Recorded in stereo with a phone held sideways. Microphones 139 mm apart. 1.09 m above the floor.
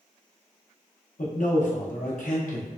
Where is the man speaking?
65° left (ahead or behind), 0.8 m.